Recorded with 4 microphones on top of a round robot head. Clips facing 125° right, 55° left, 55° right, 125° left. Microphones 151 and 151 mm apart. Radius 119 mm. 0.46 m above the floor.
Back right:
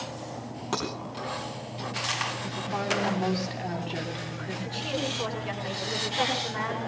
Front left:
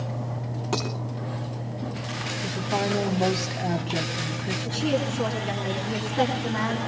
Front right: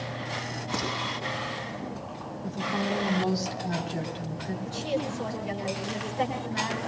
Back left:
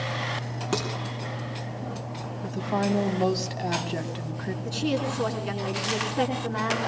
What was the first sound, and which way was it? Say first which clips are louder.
Dishes clattering: front left 2 dB, back left 4 dB; 135° left.